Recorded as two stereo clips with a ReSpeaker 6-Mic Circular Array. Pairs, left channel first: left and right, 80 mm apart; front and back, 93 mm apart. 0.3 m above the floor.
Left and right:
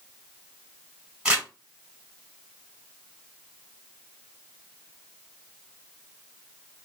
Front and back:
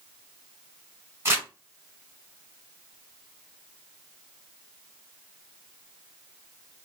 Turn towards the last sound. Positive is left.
turn(degrees=-155)